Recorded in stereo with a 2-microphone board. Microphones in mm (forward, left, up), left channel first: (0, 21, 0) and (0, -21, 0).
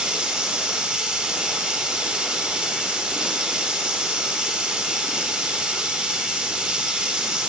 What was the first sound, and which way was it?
Running water, 20° right (ahead or behind).